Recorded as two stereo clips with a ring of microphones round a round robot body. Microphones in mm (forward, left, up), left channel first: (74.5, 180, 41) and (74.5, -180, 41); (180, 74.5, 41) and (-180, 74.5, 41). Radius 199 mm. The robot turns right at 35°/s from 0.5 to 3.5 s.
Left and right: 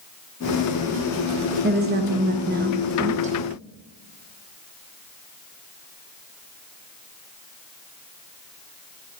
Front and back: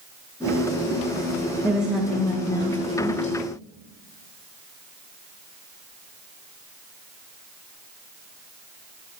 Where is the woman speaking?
100° right, 0.6 m; by 3.4 s 40° right, 0.6 m.